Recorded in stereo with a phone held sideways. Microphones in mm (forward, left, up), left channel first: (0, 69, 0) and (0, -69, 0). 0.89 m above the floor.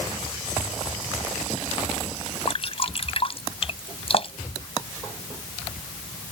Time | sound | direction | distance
2.5 | dripping | 45° left (ahead or behind) | ?